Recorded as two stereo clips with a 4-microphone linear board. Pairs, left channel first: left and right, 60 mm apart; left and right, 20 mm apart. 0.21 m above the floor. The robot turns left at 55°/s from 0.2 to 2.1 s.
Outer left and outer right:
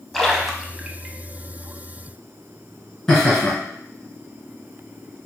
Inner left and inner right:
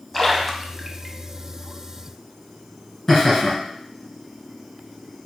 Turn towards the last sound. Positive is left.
turn(degrees=15)  # may be behind; listen again after turning